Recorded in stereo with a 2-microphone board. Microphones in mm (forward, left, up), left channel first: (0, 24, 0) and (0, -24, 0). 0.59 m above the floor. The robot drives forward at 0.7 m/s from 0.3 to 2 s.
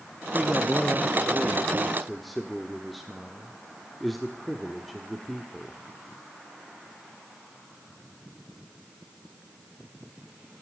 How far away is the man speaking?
About 0.6 m.